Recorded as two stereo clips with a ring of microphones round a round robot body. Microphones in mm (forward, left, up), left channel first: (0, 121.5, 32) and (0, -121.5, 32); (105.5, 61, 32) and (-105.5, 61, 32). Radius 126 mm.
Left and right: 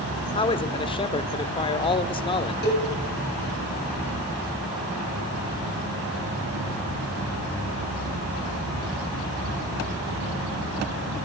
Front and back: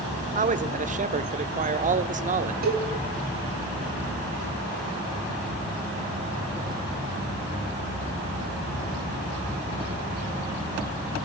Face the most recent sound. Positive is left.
turn(degrees=140)